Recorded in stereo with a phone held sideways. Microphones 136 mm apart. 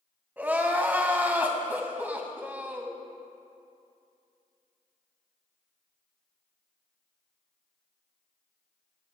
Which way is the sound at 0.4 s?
10° right (ahead or behind).